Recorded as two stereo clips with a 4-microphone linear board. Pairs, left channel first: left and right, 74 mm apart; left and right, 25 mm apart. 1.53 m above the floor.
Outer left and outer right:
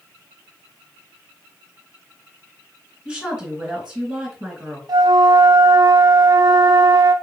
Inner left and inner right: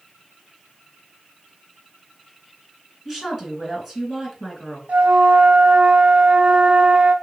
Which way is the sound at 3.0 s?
5° right (ahead or behind).